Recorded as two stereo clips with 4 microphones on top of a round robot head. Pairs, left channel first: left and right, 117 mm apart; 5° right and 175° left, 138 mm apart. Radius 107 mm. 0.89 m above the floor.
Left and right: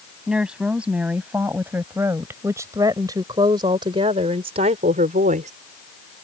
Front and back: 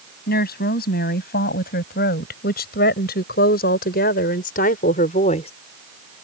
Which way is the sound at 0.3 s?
5° right.